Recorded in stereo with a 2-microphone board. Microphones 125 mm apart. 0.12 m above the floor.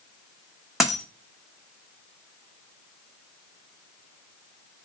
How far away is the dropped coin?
About 0.7 m.